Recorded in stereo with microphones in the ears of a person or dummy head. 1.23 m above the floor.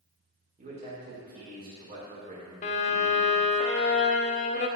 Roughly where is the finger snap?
I don't hear a finger snap.